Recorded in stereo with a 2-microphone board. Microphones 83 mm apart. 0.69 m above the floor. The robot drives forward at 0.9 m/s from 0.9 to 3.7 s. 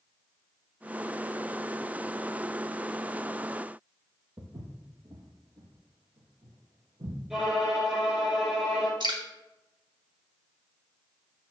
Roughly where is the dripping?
Right.